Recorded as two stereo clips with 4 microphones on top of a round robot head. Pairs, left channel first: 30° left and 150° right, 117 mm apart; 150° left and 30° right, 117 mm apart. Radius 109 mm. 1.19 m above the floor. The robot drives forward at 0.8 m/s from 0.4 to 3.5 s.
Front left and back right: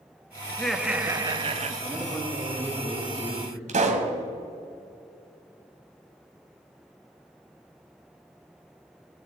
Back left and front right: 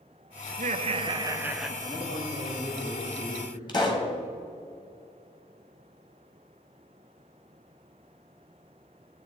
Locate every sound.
0.5 s laughter: 45° right, 0.9 m; by 1.7 s 120° right, 0.8 m
1.8 s a man speaking: 100° left, 5 m; by 3.6 s 115° left, 5.5 m
3.7 s a pop: 160° right, 1.5 m